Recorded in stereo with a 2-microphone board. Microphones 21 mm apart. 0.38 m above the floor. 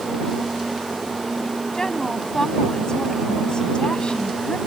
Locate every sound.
1.7 s a woman speaking: 25° left (ahead or behind); by 4.6 s 55° left (ahead or behind)